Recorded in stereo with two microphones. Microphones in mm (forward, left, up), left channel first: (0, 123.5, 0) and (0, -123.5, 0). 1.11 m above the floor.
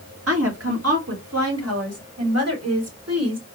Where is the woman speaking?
70° right (ahead or behind), 1.2 m; by 3.5 s 80° right, 3 m.